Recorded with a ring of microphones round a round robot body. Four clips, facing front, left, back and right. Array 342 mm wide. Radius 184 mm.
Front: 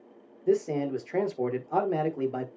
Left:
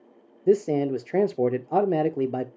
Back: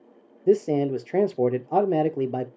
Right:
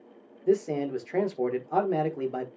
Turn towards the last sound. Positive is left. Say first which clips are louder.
# left 4 dB, back 5 dB
turn(degrees=140)